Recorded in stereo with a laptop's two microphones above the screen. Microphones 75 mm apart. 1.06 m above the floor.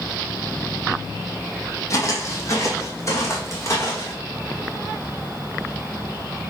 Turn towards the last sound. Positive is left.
turn(degrees=35)  # may be behind; listen again after turning